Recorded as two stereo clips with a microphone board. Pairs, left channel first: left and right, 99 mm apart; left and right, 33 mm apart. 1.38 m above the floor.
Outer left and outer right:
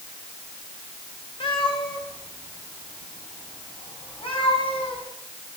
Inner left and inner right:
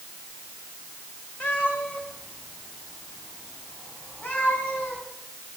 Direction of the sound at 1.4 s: 65° left (ahead or behind).